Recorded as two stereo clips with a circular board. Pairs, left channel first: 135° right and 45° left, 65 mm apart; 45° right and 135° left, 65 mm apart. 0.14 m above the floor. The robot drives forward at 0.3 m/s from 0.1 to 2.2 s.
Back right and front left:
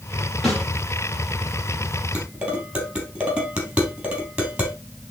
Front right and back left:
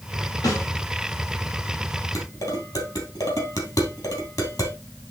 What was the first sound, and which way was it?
A snare drum, 45° right.